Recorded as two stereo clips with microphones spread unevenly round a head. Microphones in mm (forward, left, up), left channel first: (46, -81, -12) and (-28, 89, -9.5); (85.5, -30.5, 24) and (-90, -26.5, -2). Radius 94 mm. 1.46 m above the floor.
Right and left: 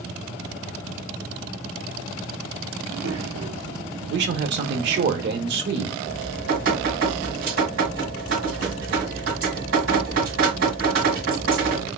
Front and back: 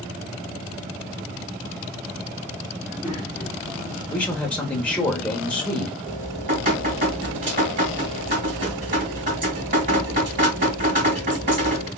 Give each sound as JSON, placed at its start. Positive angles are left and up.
{"t": 2.8, "sound": "a child speaking", "azimuth_deg": 90, "distance_m": 1.8}
{"t": 4.1, "sound": "a man speaking", "azimuth_deg": 85, "distance_m": 0.8}
{"t": 6.0, "sound": "dripping", "azimuth_deg": 135, "distance_m": 1.9}